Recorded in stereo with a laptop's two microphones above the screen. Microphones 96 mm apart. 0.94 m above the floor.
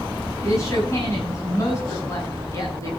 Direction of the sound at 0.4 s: 30° left (ahead or behind).